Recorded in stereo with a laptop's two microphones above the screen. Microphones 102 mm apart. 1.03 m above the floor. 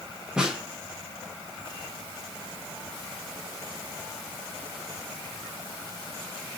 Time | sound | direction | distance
0.4 | a snare drum | 10° right (ahead or behind) | 0.8 m